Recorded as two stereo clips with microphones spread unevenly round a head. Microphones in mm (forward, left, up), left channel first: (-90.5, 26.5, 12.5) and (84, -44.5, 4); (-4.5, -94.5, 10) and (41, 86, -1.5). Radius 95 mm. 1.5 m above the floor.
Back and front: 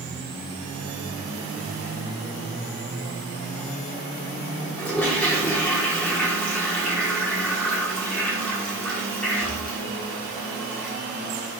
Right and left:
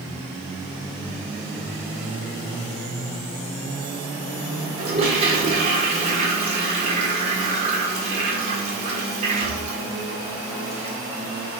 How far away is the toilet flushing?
About 1.1 m.